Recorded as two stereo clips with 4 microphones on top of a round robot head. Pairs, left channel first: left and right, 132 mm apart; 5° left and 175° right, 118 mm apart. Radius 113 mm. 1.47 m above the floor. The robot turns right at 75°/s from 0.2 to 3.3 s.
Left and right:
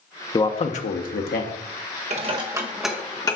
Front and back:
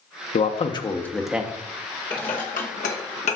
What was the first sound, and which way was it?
A man speaking, 30° left.